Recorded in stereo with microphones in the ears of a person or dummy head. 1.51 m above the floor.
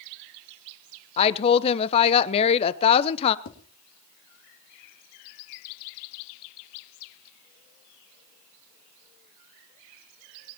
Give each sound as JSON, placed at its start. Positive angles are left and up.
{"t": 1.2, "sound": "a woman speaking", "side_deg": 30, "distance_m": 0.8}
{"t": 3.5, "sound": "tapping", "side_deg": 60, "distance_m": 2.5}